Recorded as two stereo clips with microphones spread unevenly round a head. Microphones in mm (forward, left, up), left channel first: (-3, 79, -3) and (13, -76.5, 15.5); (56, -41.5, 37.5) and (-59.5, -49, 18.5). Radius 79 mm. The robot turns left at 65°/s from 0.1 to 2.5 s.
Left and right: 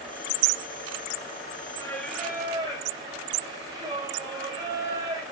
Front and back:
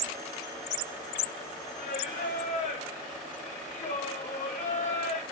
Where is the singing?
30° left, 2 m; by 5.2 s 20° right, 2 m.